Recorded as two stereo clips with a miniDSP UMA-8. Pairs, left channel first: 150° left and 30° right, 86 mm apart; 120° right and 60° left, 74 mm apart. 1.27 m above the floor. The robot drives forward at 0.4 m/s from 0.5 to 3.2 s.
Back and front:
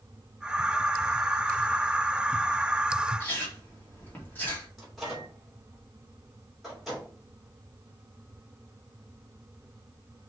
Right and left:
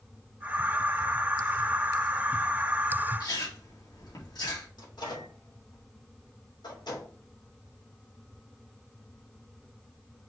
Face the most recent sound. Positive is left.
turn(degrees=-120)